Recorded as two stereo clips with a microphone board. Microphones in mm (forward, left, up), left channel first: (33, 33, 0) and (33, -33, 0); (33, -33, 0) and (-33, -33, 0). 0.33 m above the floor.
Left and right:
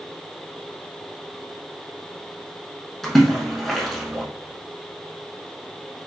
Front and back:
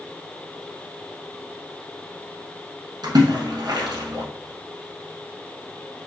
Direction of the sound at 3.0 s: 175° left.